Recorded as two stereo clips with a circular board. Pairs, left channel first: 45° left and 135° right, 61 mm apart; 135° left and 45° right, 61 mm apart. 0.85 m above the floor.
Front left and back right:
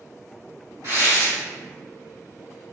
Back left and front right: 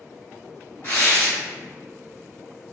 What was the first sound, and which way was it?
Tearing paper, 170° right.